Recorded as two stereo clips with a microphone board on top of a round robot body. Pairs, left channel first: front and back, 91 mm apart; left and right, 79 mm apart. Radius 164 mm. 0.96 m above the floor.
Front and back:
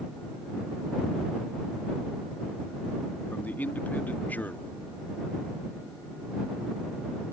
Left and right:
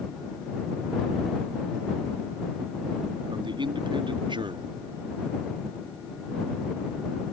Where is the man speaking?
75° right.